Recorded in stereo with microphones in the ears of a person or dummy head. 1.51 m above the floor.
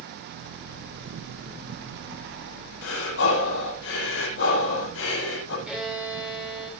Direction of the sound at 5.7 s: 5° right (ahead or behind).